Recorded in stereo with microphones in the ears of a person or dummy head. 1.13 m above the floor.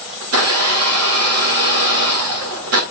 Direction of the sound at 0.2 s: 70° right (ahead or behind).